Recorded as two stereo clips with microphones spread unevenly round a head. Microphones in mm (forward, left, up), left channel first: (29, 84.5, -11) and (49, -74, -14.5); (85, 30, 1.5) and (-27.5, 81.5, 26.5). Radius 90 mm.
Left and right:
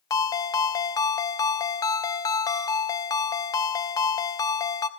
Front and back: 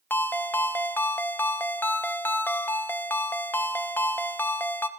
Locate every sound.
0.1 s a ringtone: 55° left, 0.7 m